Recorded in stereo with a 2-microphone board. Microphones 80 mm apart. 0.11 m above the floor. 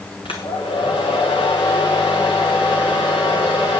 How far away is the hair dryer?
About 2 m.